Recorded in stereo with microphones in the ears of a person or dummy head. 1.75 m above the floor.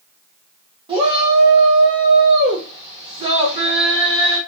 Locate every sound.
0.9 s a shout: 25° right (ahead or behind), 0.8 m